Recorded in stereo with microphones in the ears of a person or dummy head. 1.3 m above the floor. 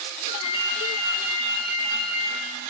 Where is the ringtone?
30° left (ahead or behind), 6.5 m.